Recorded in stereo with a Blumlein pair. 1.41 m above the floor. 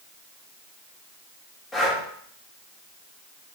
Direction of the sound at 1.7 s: 15° left.